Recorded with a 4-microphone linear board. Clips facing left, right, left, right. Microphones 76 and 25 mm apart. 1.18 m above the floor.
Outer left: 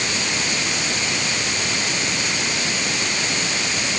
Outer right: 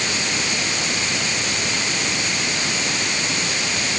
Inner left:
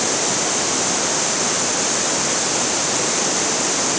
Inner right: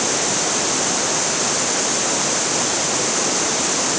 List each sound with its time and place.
Only background noise.